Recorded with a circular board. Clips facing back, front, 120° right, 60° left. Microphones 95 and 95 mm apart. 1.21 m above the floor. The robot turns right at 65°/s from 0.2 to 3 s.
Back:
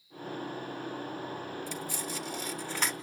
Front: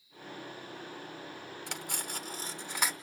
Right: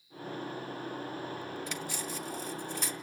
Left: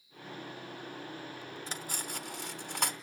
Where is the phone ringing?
No phone ringing in this recording.